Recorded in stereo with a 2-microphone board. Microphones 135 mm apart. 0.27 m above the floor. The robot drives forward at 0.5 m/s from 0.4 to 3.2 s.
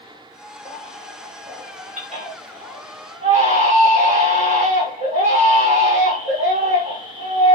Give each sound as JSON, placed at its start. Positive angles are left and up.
{"t": 0.7, "sound": "a baby crying", "side_deg": -65, "distance_m": 7.5}